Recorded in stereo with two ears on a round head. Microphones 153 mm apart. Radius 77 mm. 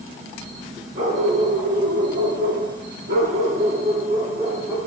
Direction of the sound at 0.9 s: 30° right (ahead or behind).